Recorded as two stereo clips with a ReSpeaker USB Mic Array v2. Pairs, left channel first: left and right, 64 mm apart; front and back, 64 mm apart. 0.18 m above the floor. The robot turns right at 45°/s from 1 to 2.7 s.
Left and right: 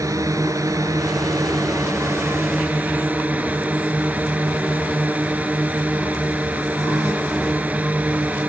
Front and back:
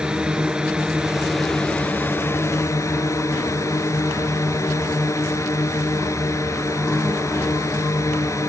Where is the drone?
105° right; by 8.5 s 25° right.